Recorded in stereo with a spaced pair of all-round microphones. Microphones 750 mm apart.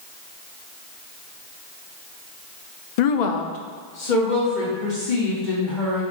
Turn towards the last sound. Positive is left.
turn(degrees=80)